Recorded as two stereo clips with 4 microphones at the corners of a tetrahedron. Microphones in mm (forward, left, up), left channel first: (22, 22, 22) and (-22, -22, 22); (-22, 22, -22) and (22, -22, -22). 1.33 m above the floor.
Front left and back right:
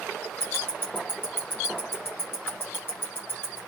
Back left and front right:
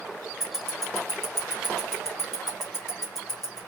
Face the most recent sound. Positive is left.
turn(degrees=40)